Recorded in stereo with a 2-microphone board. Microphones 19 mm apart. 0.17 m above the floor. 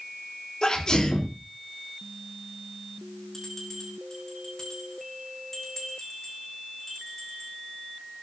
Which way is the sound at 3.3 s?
25° left (ahead or behind).